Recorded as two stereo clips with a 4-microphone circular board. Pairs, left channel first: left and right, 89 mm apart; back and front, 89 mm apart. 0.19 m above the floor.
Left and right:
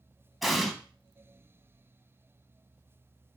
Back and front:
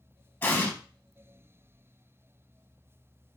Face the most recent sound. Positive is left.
turn(degrees=180)